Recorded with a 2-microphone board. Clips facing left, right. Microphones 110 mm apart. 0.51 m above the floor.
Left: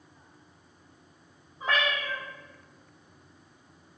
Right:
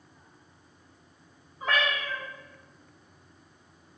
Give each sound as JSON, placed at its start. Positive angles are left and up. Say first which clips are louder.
{"t": 1.6, "sound": "a cat meowing", "louder": "even", "side_deg": 25, "distance_m": 1.9}